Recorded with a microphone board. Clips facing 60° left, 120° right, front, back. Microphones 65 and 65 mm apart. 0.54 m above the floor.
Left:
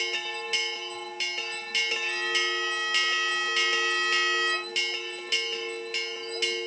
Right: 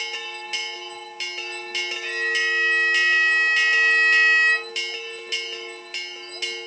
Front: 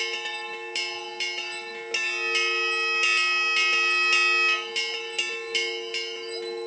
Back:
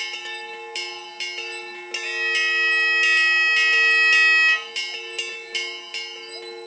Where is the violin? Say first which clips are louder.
Right 5 dB, back 5 dB; 150° right, 0.9 m.